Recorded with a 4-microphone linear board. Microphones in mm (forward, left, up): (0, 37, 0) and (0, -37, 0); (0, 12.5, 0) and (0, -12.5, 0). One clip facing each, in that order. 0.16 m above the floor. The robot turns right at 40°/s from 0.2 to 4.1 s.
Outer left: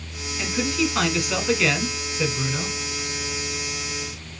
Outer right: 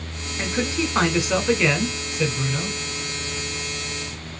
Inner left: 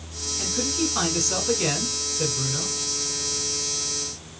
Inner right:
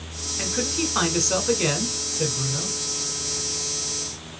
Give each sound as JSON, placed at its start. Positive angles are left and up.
{"t": 0.4, "sound": "a man speaking", "azimuth_deg": -75, "distance_m": 1.2}